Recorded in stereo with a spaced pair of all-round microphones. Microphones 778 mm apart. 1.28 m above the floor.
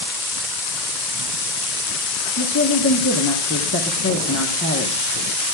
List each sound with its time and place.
2.4 s a woman speaking: 20° left (ahead or behind), 1.1 m